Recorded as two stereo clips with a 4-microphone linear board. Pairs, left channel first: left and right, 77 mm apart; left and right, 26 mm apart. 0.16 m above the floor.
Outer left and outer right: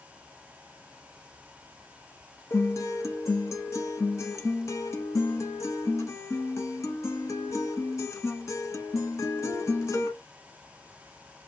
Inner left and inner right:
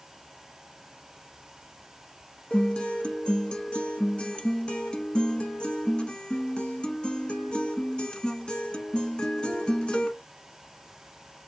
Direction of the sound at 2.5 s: 45° left (ahead or behind).